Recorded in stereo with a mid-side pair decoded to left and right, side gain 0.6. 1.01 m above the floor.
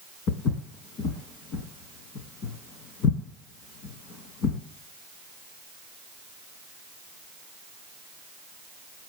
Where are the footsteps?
65° left, 3.5 m.